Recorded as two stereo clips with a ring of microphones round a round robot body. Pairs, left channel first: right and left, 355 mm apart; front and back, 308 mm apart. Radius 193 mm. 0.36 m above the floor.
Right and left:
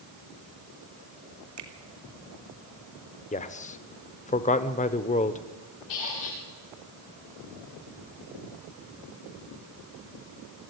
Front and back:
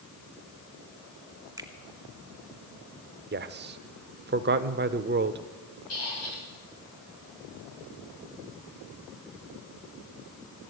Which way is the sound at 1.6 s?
100° left.